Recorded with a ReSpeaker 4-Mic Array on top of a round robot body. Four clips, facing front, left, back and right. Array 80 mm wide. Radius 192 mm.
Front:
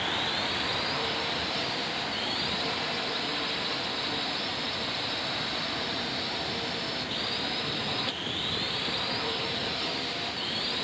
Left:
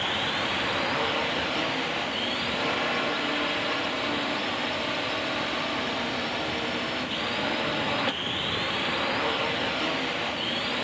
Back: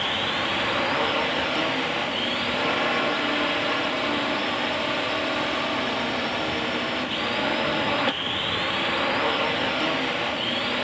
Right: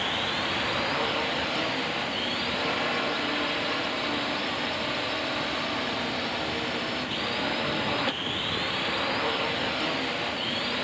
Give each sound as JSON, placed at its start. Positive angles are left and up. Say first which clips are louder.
{"t": 0.0, "sound": "a drone", "louder": "left 1 dB, back 5 dB", "azimuth_deg": 175}